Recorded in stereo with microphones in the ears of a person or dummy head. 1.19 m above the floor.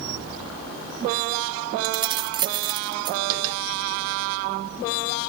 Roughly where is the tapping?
Right.